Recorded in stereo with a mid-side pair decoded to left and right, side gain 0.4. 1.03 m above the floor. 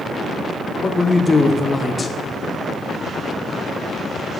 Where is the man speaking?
35° left, 0.8 m.